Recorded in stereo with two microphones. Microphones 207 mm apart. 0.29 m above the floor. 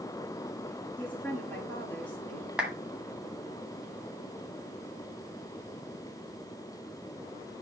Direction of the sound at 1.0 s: 10° left (ahead or behind).